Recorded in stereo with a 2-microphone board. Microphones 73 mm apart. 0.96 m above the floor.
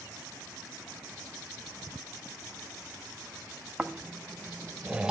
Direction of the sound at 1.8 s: 60° right (ahead or behind).